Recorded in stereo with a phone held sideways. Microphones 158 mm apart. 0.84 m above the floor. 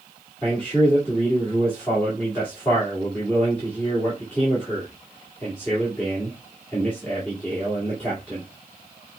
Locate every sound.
0.4 s a man speaking: 10° left (ahead or behind), 1.9 m